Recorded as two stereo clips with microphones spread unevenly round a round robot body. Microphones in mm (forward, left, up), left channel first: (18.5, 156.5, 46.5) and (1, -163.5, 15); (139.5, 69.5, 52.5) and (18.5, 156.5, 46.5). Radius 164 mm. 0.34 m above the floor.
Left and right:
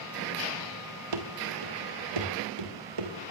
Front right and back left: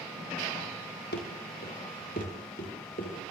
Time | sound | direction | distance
1.1 | running footsteps | 70° right | 3.5 m